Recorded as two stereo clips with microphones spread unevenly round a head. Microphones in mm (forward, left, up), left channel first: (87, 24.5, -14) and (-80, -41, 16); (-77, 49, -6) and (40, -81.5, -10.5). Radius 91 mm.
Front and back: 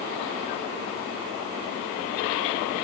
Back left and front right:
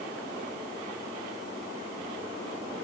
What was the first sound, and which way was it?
Only background noise.